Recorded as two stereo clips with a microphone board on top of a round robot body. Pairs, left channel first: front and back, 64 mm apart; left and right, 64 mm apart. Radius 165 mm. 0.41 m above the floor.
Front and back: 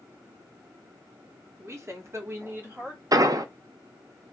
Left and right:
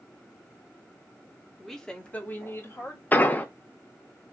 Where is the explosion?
155° left, 0.6 m.